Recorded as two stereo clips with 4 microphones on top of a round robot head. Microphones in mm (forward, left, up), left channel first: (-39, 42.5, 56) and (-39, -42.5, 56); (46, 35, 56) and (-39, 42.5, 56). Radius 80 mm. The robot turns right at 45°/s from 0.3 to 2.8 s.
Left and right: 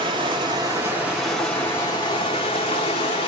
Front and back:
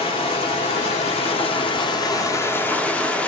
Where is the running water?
45° right, 1.0 m; by 3.3 s 70° left, 1.0 m.